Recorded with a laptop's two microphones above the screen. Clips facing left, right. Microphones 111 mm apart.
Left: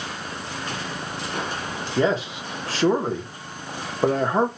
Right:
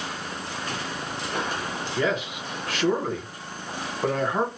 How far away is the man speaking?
About 0.7 m.